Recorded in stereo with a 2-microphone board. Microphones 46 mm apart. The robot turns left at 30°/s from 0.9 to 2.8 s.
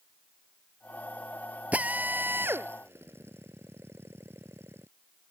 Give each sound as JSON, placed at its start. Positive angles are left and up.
{"t": 1.7, "sound": "a drill", "side_deg": -30}